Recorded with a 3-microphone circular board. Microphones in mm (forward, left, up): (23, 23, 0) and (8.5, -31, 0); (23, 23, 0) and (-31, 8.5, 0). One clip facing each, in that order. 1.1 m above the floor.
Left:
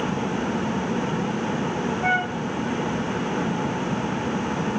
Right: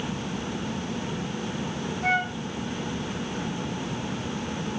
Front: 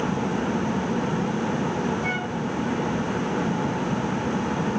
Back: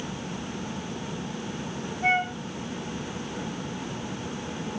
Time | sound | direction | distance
2.0 | a flute | 135° left | 3.5 m